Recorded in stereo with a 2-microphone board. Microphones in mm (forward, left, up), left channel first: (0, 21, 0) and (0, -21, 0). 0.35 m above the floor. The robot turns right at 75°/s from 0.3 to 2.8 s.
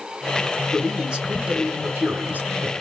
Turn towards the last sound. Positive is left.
turn(degrees=-30)